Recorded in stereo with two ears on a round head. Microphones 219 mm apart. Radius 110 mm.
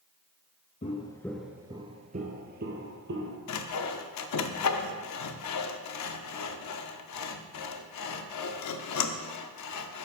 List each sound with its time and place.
0.8 s footsteps: 30° left (ahead or behind), 0.8 m; by 3.4 s 50° right (ahead or behind), 1.7 m
3.5 s sawing: 75° left (ahead or behind), 0.6 m